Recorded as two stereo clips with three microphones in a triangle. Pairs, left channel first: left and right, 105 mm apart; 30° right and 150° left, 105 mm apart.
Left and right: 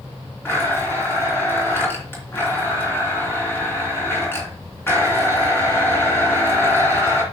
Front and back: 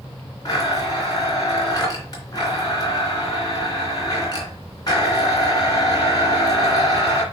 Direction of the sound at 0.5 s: 20° left.